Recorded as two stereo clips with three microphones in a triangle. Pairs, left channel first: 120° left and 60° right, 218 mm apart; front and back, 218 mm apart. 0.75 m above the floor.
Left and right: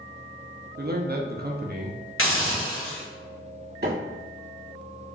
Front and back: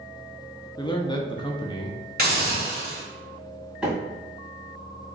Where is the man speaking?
65° right, 0.6 m.